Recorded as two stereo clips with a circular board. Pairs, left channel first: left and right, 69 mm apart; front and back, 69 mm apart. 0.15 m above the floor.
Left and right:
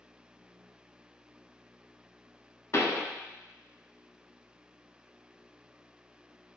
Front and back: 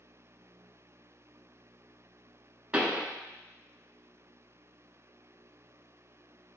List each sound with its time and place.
2.7 s a pop: 115° left, 0.5 m